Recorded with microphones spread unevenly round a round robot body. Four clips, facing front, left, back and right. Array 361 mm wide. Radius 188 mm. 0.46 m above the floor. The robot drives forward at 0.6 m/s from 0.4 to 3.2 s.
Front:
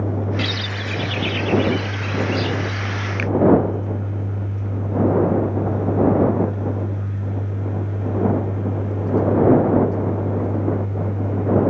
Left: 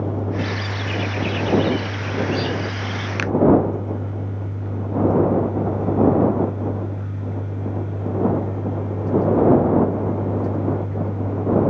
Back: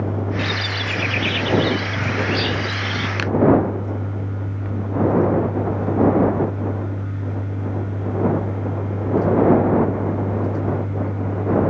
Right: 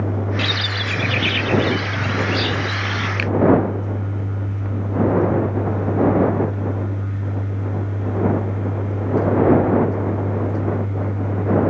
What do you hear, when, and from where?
0.4 s a bird: 55° right; by 3.1 s 155° right
3.2 s a finger snap: 150° left